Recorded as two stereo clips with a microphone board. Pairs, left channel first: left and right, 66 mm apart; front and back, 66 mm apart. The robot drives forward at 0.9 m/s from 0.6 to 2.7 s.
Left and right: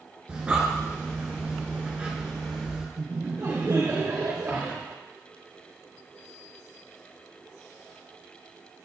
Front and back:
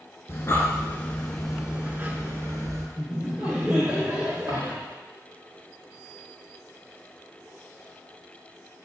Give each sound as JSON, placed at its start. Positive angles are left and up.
{"t": 0.3, "sound": "breathing", "azimuth_deg": -25, "distance_m": 1.2}
{"t": 3.0, "sound": "laughter", "azimuth_deg": -110, "distance_m": 2.5}
{"t": 4.5, "sound": "a dropped coin", "azimuth_deg": -160, "distance_m": 3.5}